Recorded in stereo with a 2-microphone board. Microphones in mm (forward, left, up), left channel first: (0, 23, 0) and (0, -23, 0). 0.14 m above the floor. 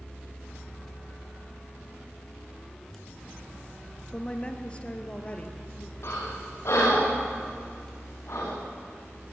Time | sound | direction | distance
4.1 | a woman speaking | 20° left (ahead or behind) | 1.9 m
6.0 | breathing | 60° left (ahead or behind) | 7 m